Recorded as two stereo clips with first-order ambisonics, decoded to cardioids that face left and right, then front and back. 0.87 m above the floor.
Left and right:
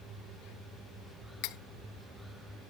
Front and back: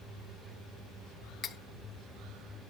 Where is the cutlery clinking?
65° left, 0.6 m.